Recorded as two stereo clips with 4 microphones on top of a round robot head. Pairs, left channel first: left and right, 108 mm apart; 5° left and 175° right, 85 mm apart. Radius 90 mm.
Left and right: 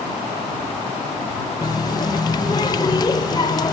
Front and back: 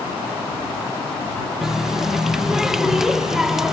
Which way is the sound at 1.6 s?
105° left.